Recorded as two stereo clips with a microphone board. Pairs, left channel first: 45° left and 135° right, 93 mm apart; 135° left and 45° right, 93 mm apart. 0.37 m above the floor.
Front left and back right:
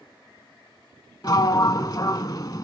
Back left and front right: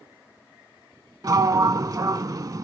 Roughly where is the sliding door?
Ahead.